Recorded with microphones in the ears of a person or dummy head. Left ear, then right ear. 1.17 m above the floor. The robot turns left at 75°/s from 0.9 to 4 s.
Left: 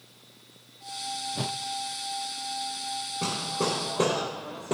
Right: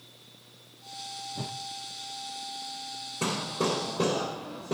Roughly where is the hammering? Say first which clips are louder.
Right 1 dB; behind right.